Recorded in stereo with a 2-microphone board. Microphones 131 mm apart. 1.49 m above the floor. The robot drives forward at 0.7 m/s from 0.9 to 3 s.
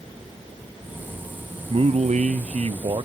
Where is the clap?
I don't hear a clap.